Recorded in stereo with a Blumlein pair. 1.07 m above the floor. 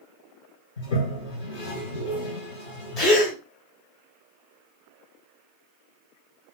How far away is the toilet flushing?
About 2.5 m.